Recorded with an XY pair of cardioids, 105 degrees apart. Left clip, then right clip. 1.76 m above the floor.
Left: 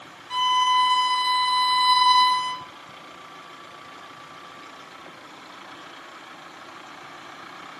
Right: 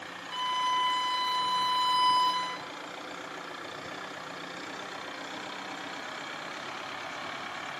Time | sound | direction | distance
0.3 | a violin | 70° left | 1.6 m